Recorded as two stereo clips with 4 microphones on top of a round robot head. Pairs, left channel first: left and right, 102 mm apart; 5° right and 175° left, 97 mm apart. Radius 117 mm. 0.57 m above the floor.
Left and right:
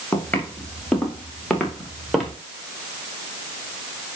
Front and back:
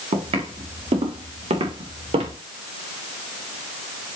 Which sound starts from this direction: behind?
Footsteps, at 0.1 s.